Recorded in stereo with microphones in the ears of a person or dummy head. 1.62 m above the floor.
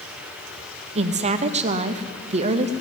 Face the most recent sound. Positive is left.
turn(degrees=-35)  # may be behind; listen again after turning